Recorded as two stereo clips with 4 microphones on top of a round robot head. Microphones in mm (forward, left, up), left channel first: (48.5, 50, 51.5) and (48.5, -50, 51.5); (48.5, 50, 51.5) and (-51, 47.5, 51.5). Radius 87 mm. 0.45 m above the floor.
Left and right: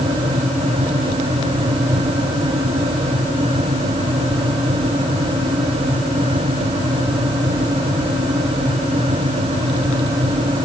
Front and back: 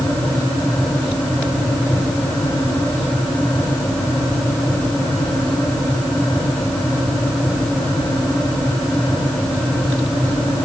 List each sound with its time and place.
Only background noise.